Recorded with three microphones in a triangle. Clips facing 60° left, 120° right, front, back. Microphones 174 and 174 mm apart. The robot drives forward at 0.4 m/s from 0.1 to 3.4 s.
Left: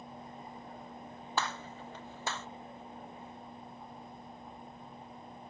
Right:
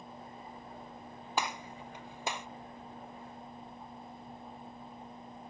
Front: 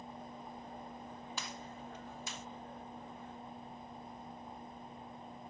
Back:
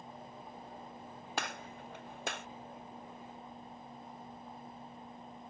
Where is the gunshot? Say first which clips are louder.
Right 1 dB, back 4 dB; 165° left.